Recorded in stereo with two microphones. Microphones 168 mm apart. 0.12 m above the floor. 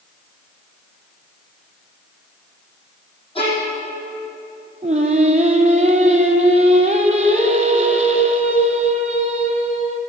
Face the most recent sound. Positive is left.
turn(degrees=-45)  # may be behind; listen again after turning